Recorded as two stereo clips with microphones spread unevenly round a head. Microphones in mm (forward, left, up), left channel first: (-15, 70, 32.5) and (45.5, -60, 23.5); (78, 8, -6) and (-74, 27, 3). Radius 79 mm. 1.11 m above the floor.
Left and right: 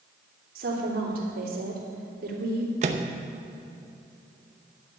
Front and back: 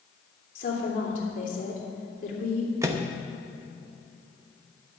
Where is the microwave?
115° right, 0.8 m.